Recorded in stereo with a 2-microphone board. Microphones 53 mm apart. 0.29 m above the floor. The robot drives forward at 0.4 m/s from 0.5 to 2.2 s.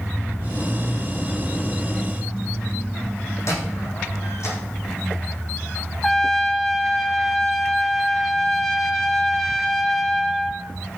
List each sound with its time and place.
3.5 s a squeak: 65° left (ahead or behind), 7 m
6.0 s a trumpet: 10° left (ahead or behind), 1.0 m